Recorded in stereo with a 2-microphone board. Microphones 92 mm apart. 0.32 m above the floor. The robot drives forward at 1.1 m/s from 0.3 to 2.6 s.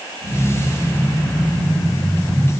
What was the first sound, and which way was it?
Only background noise.